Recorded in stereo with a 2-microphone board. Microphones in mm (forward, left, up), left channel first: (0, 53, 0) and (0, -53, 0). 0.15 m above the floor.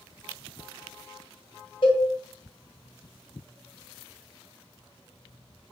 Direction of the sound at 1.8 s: 50° left (ahead or behind).